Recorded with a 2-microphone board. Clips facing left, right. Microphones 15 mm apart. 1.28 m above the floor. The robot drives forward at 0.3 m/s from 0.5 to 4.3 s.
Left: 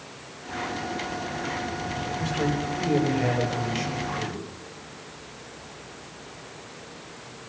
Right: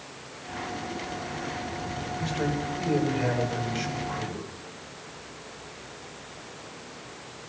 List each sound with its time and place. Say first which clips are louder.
2.2 s a man speaking: left 2 dB; 35° left (ahead or behind), 5 m; by 4.4 s 30° left (ahead or behind), 5.5 m